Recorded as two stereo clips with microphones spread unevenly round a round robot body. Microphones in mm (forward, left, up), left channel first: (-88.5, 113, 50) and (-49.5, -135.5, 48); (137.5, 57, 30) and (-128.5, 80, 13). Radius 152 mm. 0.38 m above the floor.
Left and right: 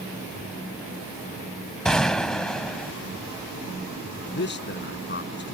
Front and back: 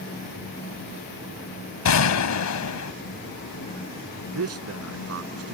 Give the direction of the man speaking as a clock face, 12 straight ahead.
7 o'clock.